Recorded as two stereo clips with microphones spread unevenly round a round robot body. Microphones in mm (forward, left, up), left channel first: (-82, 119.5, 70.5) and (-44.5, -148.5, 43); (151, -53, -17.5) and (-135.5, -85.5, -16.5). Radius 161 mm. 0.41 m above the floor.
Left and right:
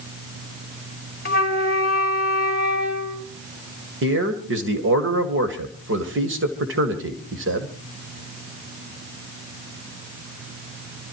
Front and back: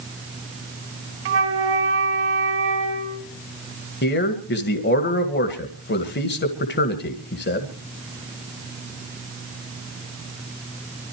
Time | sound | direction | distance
1.2 | a flute | 150° left | 1.8 m
4.0 | a man speaking | 45° right | 1.9 m